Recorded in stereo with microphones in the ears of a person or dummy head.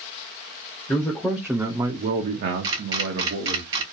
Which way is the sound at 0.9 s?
20° left (ahead or behind).